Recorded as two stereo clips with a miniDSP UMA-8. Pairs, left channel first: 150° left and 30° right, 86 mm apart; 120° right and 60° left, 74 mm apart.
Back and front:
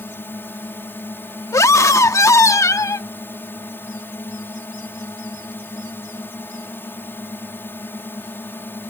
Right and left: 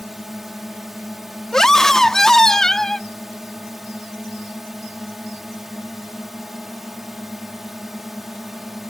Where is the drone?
140° left.